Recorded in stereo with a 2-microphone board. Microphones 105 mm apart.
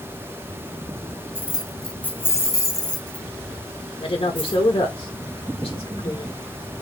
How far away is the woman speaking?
About 1.8 m.